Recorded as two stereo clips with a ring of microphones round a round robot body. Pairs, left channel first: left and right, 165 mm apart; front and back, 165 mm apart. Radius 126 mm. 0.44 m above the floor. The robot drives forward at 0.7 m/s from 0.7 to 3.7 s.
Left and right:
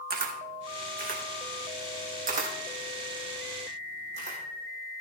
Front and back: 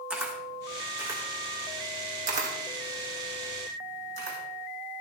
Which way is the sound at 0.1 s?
100° right.